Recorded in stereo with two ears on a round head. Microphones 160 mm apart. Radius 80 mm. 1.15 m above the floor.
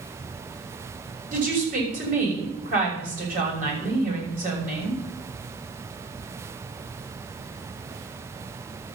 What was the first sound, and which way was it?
A woman speaking, 50° right (ahead or behind).